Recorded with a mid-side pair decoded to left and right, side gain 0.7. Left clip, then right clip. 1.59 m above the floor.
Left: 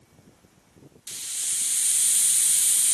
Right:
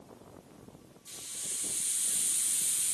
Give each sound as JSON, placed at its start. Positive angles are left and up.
{"t": 1.1, "sound": "a hiss", "azimuth_deg": 40, "distance_m": 1.3}